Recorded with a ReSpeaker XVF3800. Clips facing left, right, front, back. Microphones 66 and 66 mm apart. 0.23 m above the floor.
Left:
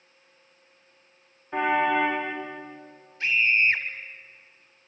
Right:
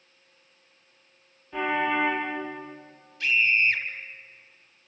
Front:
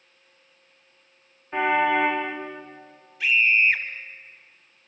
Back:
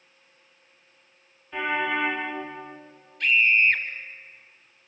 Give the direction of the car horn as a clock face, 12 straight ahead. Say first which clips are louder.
Left 3 dB, front 5 dB; 10 o'clock.